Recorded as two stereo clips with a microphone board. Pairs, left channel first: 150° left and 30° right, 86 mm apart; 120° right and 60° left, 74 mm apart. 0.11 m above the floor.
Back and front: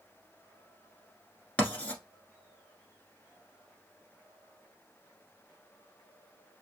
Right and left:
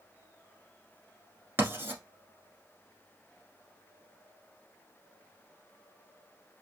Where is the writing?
90° left, 1.1 m.